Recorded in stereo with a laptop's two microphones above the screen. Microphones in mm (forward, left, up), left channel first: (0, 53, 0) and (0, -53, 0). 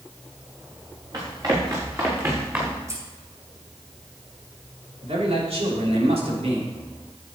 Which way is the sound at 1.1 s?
40° right (ahead or behind).